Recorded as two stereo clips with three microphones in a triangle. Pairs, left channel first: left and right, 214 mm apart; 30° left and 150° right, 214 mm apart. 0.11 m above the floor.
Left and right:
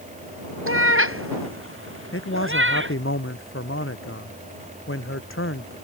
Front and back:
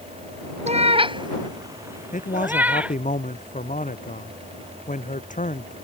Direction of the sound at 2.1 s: 80° left.